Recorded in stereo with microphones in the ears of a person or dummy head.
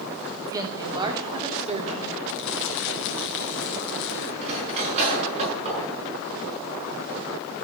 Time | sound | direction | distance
0.5 | a woman speaking | 15° right (ahead or behind) | 2.5 m
2.3 | crumpling | 65° left (ahead or behind) | 3 m
4.4 | cutlery clinking | 40° right (ahead or behind) | 8 m